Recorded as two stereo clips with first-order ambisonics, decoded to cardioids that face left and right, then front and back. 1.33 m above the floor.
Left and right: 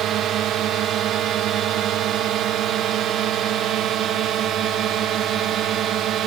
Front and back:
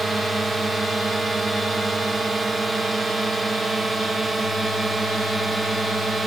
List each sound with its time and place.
0.0 s a drone: 105° right